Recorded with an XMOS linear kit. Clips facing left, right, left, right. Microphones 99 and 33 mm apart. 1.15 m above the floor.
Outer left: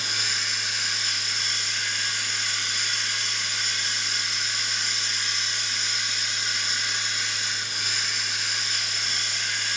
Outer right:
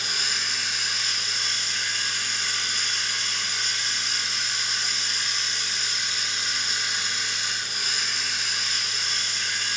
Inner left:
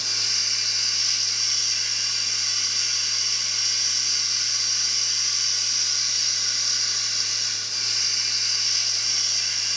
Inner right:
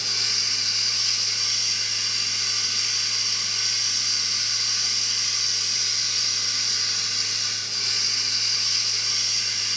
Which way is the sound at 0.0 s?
45° right (ahead or behind).